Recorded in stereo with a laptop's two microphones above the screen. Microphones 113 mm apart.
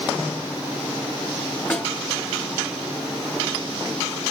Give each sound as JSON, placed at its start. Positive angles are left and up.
{"t": 1.7, "sound": "a snare drum", "side_deg": 10, "distance_m": 2.5}